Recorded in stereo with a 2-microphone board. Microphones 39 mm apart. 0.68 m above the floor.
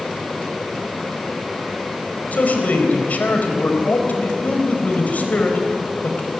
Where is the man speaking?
45° left (ahead or behind), 4 m.